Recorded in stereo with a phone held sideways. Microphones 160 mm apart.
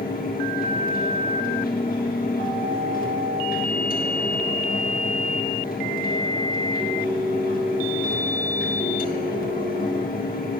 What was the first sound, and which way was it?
A fan, 65° left (ahead or behind).